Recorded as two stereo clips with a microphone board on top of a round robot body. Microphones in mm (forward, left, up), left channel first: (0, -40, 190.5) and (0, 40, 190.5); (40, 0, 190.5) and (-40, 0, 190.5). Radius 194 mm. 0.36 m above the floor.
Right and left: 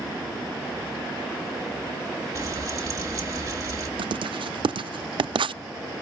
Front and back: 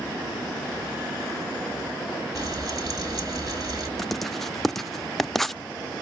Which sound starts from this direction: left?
Writing, at 4.0 s.